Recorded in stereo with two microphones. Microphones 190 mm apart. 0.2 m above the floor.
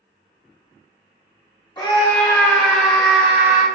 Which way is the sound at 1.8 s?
20° left (ahead or behind).